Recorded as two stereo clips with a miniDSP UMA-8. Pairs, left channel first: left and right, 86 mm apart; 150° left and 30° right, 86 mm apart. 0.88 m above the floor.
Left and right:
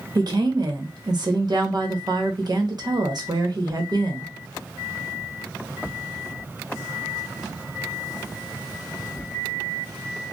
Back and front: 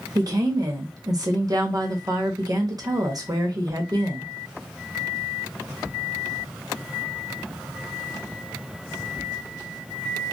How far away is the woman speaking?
About 1.0 m.